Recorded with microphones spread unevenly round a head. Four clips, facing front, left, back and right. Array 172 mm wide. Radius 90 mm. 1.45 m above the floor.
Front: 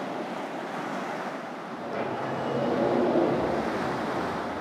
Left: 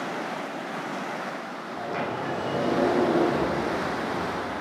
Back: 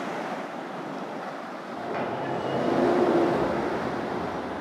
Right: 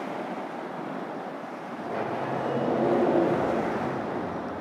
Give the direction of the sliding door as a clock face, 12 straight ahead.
7 o'clock.